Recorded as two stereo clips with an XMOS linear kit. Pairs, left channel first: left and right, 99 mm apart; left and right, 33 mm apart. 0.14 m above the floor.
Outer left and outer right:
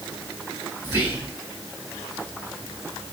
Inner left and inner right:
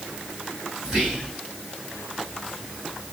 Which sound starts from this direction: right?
Whispering, at 0.8 s.